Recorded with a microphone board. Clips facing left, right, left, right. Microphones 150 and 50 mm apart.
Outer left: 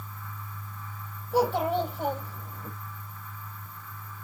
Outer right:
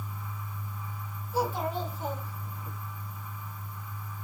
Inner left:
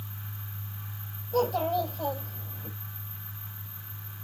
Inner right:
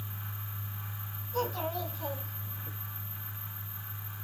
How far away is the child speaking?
About 4 m.